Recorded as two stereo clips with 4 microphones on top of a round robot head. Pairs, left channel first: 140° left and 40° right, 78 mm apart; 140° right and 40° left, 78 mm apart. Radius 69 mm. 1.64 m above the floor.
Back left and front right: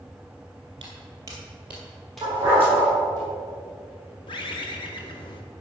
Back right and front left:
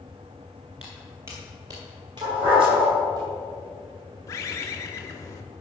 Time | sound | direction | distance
0.8 | footsteps | 30° right | 1.8 m
2.2 | a dog barking | 25° left | 3.5 m
4.3 | a bird | 165° left | 0.8 m